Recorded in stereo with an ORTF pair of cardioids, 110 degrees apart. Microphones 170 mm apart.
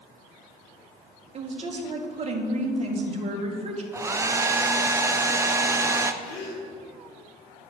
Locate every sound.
1.3 s a woman speaking: 35° right, 1.7 m
3.9 s a hair dryer: 15° right, 0.6 m
6.2 s a gasp: 45° left, 2.5 m